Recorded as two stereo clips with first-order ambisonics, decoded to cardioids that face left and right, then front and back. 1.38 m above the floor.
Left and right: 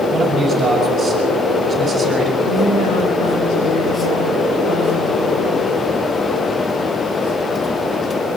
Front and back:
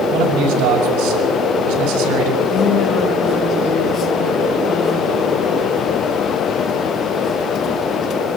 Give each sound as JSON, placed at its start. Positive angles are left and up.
{"t": 0.1, "sound": "a man speaking", "azimuth_deg": 180, "distance_m": 6.0}
{"t": 2.4, "sound": "a woman speaking", "azimuth_deg": 60, "distance_m": 7.5}